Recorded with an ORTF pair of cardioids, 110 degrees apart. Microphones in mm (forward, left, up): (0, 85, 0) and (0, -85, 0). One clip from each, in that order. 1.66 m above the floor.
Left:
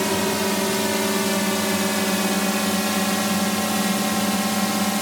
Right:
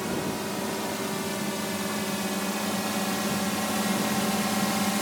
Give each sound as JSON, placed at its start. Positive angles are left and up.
{"t": 0.0, "sound": "a drone", "azimuth_deg": 65}